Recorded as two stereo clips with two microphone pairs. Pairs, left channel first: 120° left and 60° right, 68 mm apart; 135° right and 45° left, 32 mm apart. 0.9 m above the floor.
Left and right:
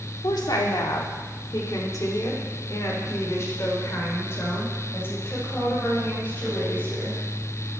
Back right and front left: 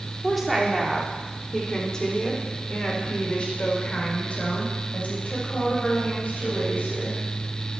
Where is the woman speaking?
125° left, 1.8 m; by 7.2 s 175° right, 4.5 m.